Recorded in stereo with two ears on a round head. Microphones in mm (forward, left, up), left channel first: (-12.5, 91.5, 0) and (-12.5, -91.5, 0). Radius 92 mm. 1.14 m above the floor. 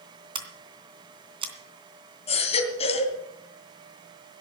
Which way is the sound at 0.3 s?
30° right (ahead or behind).